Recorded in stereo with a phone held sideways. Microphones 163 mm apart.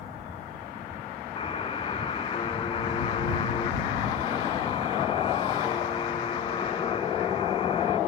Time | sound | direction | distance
1.4 | a buzzer | 35° left (ahead or behind) | ?